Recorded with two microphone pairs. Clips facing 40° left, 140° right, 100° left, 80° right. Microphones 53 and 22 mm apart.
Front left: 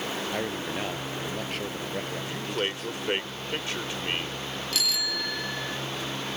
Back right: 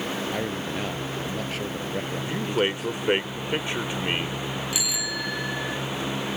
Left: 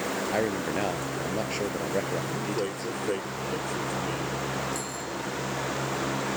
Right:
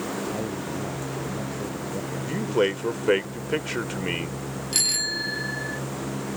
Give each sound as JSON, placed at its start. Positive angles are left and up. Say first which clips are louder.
{"t": 0.3, "sound": "a man speaking", "louder": "back right 2 dB, left 3 dB", "azimuth_deg": 130}
{"t": 2.3, "sound": "a man speaking", "louder": "back right 8 dB, right 6 dB", "azimuth_deg": -75}
{"t": 4.7, "sound": "a bicycle bell", "louder": "back right 1 dB, right 8 dB", "azimuth_deg": -65}